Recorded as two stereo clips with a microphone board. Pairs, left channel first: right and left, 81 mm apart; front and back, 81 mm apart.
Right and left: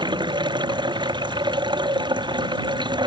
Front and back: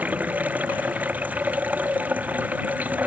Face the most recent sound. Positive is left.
turn(degrees=110)